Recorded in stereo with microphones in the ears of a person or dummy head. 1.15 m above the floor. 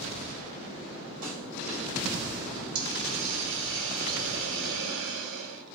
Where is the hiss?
60° right (ahead or behind), 0.9 m.